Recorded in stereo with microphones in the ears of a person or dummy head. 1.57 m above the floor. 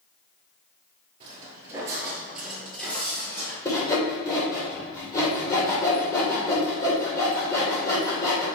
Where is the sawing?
20° left (ahead or behind), 2.5 m.